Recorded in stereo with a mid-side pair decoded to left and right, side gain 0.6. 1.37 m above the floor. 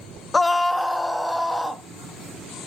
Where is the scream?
20° left, 0.6 m; by 1.8 s straight ahead, 3 m.